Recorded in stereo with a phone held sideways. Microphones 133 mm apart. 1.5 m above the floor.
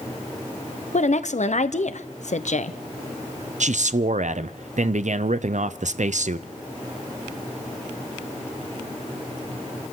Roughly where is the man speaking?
Right.